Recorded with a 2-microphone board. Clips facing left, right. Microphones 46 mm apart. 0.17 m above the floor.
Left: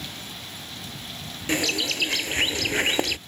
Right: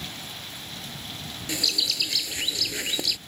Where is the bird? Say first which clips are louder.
Left 4 dB; 45° left (ahead or behind).